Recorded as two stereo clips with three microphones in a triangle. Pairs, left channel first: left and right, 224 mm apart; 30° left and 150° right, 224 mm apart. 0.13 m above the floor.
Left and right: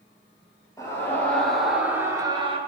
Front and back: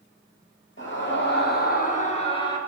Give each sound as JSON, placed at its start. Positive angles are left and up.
{"t": 0.8, "sound": "a scream", "azimuth_deg": 15, "distance_m": 3.5}